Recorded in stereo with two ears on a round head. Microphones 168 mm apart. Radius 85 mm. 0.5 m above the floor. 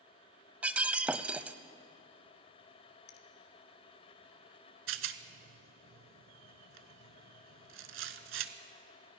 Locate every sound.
0.6 s breaking glass: 5° right (ahead or behind), 0.6 m
3.1 s a finger snap: 55° left (ahead or behind), 1.7 m
4.9 s a rattle: 70° right (ahead or behind), 1.0 m